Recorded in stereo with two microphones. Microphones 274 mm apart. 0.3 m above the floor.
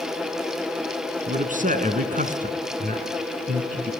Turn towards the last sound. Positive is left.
turn(degrees=-30)  # may be behind; listen again after turning